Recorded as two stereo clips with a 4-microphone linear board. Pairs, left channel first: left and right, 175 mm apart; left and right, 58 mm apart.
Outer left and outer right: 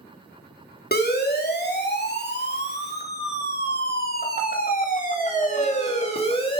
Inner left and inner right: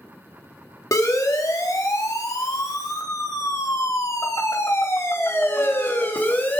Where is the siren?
65° left (ahead or behind), 3.5 m; by 6.6 s 30° left (ahead or behind), 3 m.